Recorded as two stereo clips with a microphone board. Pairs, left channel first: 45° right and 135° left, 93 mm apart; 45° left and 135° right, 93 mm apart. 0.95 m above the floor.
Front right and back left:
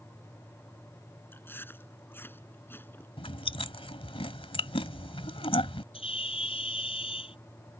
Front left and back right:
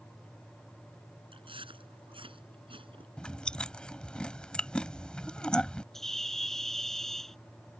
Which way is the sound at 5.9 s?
40° right.